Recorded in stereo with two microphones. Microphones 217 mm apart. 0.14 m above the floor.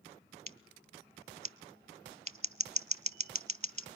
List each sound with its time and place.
0.5 s scissors: 30° right (ahead or behind), 0.5 m